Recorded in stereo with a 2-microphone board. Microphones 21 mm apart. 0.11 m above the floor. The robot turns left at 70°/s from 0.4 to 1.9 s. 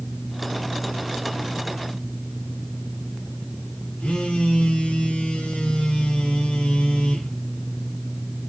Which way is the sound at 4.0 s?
60° left (ahead or behind).